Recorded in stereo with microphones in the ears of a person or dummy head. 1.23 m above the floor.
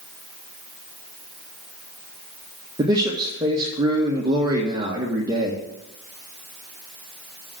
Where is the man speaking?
20° right (ahead or behind), 1.6 m.